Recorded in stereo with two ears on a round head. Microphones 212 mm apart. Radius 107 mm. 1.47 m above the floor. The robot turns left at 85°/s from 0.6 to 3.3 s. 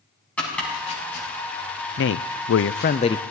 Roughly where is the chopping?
Centre.